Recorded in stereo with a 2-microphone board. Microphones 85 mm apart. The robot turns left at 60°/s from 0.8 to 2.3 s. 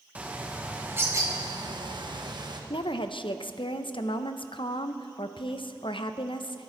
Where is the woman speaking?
80° left, 0.8 m.